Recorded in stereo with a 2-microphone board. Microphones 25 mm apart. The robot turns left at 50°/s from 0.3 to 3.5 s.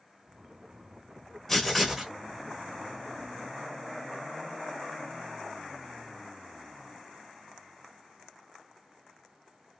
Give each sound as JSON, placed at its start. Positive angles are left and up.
{"t": 1.5, "sound": "writing", "azimuth_deg": 15, "distance_m": 0.9}